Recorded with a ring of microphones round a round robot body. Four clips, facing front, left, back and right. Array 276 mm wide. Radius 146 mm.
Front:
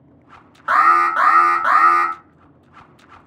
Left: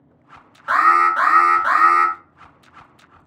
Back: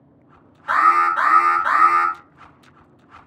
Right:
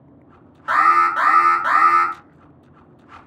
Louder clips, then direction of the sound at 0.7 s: Even, front 2 dB; 10° right.